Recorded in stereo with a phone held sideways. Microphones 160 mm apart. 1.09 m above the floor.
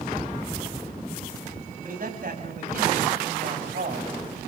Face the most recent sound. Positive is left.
turn(degrees=-65)  # may be behind; listen again after turning